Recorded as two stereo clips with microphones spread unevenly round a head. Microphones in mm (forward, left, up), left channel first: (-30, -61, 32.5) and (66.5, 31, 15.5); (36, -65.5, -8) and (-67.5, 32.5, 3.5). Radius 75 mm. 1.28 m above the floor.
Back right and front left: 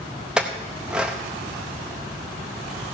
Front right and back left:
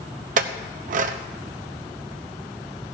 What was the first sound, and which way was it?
A clink, 135° left.